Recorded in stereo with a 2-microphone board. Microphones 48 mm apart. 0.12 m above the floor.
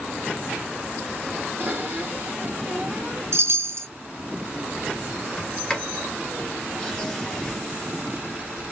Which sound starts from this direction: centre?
A sliding door, at 5.4 s.